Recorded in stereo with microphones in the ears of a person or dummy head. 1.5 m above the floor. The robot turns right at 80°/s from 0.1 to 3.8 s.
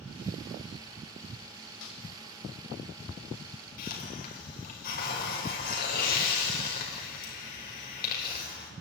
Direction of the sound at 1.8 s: 75° left (ahead or behind).